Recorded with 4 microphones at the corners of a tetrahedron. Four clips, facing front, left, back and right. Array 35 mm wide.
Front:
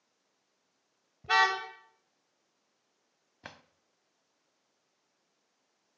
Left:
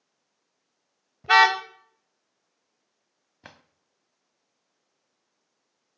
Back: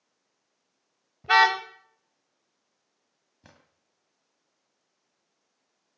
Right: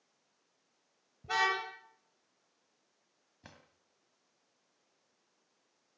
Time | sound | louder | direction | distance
1.2 | a car horn | left 13 dB, back 6 dB | 115° left | 2.5 m
3.4 | a drawer | left 8 dB, front 8 dB | 40° left | 1.6 m